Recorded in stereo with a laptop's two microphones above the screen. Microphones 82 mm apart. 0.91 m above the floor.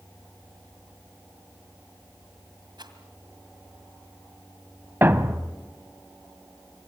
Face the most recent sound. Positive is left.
turn(degrees=-25)  # may be behind; listen again after turning